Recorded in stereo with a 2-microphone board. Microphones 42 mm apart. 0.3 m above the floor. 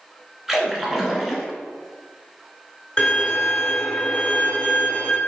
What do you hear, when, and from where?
0.5 s a splash: 10° right (ahead or behind), 0.8 m
3.0 s a violin: 30° left (ahead or behind), 1.3 m